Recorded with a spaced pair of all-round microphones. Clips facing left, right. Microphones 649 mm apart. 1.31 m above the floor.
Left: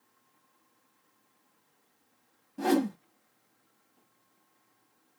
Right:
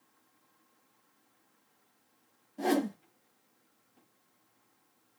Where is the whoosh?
40° left (ahead or behind), 0.6 m.